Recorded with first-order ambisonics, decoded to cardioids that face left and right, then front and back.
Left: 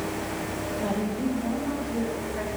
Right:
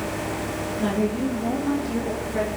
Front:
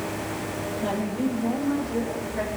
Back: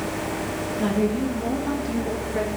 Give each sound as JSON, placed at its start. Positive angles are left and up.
{"t": 0.8, "sound": "a woman speaking", "azimuth_deg": -155, "distance_m": 6.5}